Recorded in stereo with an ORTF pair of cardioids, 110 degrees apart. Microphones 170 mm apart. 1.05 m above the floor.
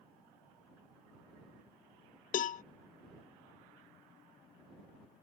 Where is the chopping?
No chopping in this recording.